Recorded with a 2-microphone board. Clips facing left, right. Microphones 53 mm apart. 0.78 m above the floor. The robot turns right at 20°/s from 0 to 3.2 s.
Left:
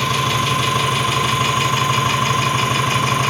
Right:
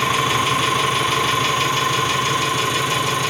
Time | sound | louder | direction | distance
0.0 | an engine running | even | 15° right | 3 m